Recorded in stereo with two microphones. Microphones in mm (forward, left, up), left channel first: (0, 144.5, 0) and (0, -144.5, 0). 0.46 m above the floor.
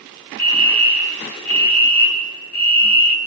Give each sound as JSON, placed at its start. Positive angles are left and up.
{"t": 0.4, "sound": "a fire alarm", "side_deg": 30, "distance_m": 2.0}